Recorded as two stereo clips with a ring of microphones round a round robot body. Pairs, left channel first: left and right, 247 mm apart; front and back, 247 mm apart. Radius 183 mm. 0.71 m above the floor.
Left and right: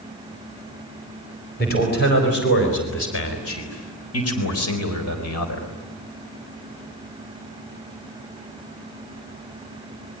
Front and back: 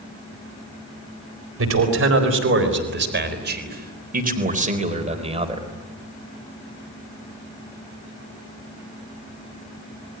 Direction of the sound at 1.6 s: 150° left.